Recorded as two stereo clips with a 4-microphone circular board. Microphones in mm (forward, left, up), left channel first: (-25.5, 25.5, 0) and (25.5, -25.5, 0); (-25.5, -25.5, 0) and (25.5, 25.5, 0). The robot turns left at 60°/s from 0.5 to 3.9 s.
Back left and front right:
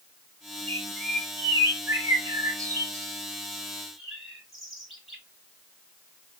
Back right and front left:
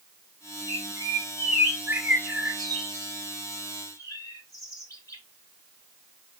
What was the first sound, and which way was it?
A bird, 60° left.